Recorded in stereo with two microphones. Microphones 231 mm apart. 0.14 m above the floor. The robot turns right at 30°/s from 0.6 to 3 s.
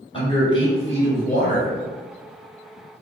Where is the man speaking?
35° left, 1.5 m; by 1.7 s 65° left, 1.5 m.